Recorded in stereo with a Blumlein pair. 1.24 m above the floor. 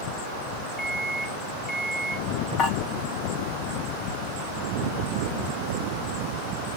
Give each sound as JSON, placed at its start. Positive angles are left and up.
{"t": 0.8, "sound": "a microwave", "azimuth_deg": 10, "distance_m": 1.4}
{"t": 2.6, "sound": "dishes clattering", "azimuth_deg": 25, "distance_m": 4.0}